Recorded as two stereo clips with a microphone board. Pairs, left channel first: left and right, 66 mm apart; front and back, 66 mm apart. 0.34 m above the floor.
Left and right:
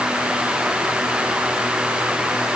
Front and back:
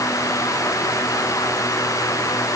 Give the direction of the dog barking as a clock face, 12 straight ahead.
I don't hear a dog barking.